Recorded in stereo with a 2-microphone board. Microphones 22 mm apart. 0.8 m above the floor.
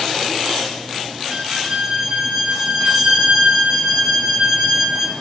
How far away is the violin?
About 0.6 m.